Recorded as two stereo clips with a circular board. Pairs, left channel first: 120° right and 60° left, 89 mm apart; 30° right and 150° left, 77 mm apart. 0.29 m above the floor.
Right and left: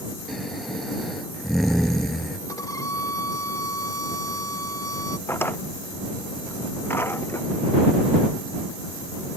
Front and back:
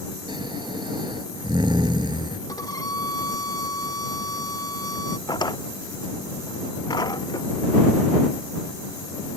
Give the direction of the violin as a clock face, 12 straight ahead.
2 o'clock.